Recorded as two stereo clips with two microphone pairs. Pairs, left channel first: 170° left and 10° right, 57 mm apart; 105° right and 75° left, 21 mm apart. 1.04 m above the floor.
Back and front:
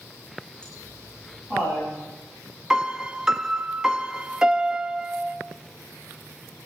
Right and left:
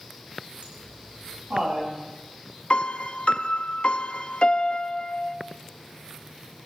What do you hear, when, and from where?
0.6 s laughter: 90° left, 7.5 m; by 1.9 s 95° left, 8.5 m
2.7 s a piano: 95° right, 0.6 m